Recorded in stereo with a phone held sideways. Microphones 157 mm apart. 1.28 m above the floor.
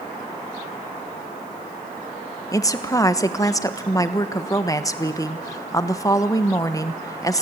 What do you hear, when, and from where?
2.5 s a woman speaking: 20° left (ahead or behind), 1.3 m